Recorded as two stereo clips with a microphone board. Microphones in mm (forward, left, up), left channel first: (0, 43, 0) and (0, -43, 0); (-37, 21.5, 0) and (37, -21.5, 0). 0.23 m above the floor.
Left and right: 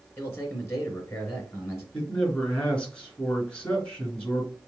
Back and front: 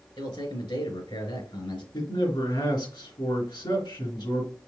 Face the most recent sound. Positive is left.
turn(degrees=160)